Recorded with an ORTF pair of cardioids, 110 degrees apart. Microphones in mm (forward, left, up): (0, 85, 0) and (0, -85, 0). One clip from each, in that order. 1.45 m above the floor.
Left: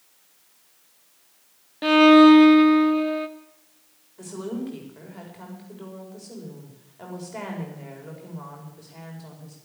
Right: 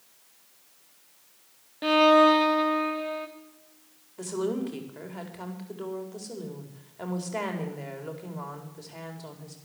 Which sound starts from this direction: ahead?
A violin, at 1.8 s.